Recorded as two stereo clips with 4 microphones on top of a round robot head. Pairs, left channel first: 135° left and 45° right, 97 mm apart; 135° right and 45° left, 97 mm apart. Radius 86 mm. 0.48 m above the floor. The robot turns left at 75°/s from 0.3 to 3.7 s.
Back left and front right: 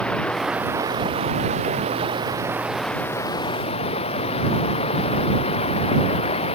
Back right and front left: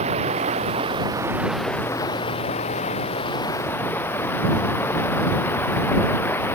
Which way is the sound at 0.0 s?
55° left.